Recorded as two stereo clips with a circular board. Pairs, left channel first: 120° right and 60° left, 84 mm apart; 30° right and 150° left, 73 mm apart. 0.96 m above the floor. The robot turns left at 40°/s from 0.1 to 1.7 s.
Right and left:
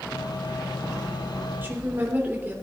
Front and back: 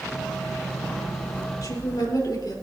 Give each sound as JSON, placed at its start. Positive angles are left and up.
{"t": 1.6, "sound": "a woman speaking", "azimuth_deg": -5, "distance_m": 3.0}